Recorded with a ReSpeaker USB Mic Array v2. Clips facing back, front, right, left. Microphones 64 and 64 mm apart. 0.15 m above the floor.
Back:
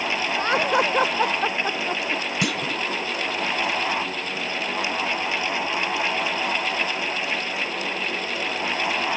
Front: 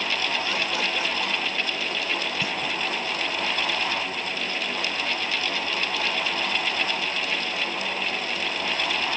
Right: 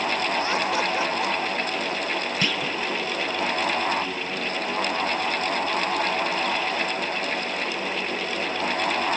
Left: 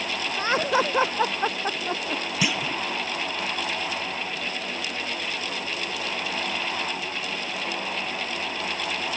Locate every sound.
0.4 s laughter: 145° left; by 2.2 s 135° left
2.4 s a clunk: 170° left